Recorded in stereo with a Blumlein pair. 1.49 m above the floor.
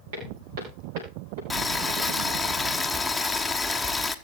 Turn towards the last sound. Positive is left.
turn(degrees=5)